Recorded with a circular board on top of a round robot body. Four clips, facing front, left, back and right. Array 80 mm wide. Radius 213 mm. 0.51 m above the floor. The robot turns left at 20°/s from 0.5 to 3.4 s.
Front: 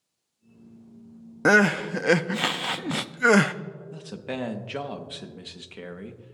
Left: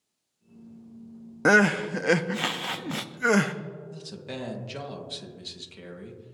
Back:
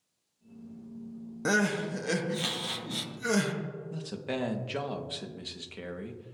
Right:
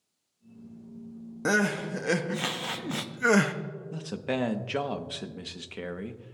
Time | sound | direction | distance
1.4 | crying | 40° left | 0.7 m
3.9 | a man speaking | 75° right | 1.4 m